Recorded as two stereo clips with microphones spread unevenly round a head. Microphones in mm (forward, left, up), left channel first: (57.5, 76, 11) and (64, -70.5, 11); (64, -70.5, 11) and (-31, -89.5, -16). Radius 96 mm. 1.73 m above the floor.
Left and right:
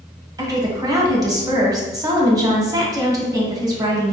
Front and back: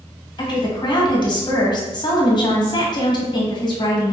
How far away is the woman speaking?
About 1.2 m.